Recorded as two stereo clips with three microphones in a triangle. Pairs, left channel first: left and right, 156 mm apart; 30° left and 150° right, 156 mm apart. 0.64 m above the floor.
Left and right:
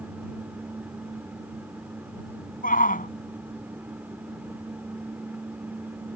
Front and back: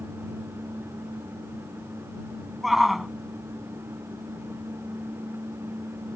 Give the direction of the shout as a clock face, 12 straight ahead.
8 o'clock.